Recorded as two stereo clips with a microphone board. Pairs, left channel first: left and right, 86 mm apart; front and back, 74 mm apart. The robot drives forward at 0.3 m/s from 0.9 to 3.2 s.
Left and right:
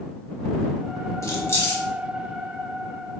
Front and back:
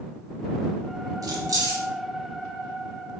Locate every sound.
1.2 s keys jangling: 145° left, 0.6 m; by 1.8 s 150° left, 0.8 m